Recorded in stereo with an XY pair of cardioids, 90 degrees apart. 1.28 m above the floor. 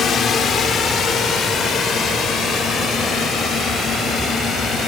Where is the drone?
70° left; by 4.9 s 75° left.